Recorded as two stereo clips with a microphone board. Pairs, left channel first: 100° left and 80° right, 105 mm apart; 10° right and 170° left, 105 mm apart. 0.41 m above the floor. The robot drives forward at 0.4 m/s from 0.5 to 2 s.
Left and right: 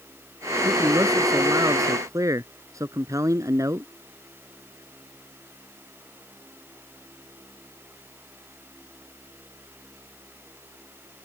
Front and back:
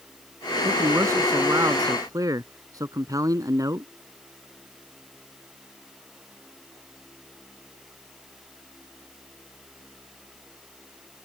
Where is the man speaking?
130° right; by 3.9 s 135° right.